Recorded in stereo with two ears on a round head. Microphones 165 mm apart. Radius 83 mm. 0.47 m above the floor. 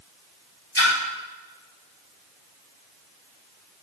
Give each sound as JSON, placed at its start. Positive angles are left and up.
{"t": 0.8, "sound": "a splash", "side_deg": 20, "distance_m": 2.5}